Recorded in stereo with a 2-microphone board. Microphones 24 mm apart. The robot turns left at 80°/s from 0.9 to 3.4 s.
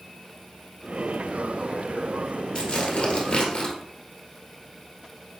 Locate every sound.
2.5 s tearing paper: 145° left, 1.3 m; by 3.8 s 75° left, 1.3 m